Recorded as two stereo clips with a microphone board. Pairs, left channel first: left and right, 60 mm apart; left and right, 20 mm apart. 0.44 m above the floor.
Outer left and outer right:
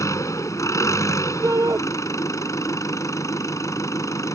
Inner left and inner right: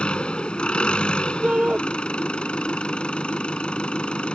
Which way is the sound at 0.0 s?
65° left (ahead or behind).